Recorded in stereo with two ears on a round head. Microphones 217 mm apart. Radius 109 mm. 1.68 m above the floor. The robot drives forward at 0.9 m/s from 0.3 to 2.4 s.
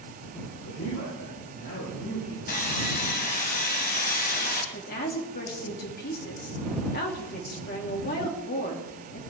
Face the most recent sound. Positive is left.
turn(degrees=40)  # may be behind; listen again after turning